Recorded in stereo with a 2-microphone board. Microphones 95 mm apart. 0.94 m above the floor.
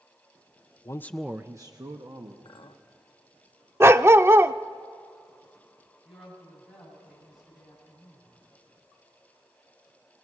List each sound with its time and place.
0.8 s a man speaking: 35° left (ahead or behind), 0.7 m; by 2.4 s 50° right (ahead or behind), 1.8 m
2.5 s a clink: 55° left (ahead or behind), 1.1 m
3.8 s a dog barking: 25° right (ahead or behind), 0.5 m
6.0 s a woman speaking: centre (ahead or behind), 8.5 m